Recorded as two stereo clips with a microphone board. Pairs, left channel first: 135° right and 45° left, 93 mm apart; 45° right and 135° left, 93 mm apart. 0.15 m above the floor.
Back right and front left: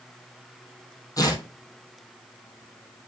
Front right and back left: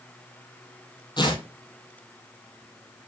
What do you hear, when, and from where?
1.2 s tearing paper: 85° right, 1.9 m